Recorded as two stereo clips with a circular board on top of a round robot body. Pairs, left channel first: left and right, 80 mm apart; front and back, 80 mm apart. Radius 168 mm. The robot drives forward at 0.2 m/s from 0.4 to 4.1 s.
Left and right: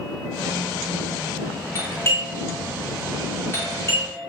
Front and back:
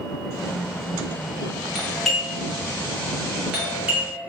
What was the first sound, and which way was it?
A doorbell, 85° left.